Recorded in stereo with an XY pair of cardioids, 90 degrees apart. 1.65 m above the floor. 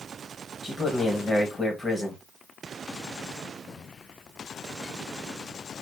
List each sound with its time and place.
0.6 s a man speaking: 25° left, 1.9 m